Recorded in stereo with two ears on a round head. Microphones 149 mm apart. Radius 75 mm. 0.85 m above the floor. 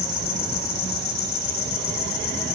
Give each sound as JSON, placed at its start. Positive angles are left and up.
{"t": 0.0, "sound": "an insect", "side_deg": 60, "distance_m": 7.0}